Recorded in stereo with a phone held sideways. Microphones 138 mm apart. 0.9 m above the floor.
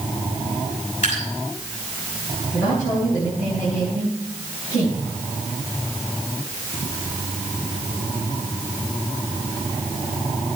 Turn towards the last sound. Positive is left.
turn(degrees=60)  # may be behind; listen again after turning